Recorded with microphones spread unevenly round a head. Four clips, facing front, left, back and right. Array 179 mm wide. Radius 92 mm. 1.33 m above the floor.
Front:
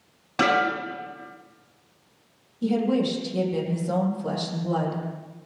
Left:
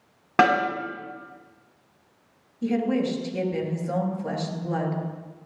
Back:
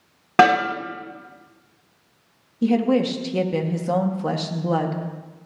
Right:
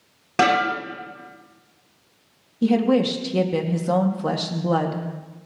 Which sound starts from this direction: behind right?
A woman speaking, at 2.6 s.